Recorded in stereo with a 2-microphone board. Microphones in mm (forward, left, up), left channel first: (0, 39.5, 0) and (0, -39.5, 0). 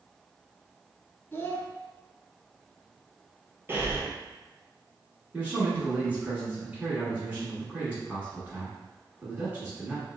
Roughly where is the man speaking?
Centre.